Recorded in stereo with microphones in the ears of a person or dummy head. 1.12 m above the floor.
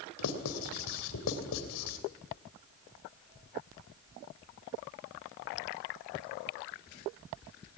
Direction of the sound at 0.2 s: 80° left.